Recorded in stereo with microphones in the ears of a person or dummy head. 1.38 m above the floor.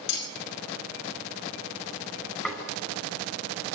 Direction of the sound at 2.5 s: 5° left (ahead or behind).